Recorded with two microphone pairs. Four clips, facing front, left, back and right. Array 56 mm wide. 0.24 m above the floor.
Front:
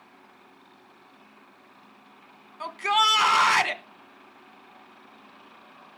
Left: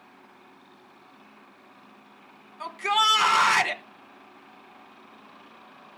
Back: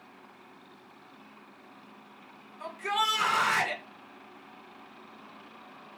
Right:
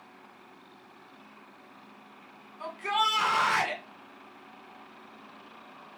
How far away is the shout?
About 2 m.